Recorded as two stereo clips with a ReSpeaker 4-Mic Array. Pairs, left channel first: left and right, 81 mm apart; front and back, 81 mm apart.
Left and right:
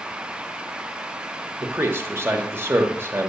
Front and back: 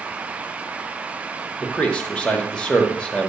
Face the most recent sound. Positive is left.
turn(degrees=-65)